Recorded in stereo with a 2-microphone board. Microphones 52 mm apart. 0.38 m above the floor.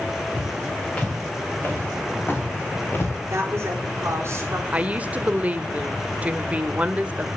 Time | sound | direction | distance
0.4 | footsteps | 25° left (ahead or behind) | 6.5 m
3.3 | a woman speaking | 55° right (ahead or behind) | 4.5 m
4.7 | a woman speaking | 25° right (ahead or behind) | 0.9 m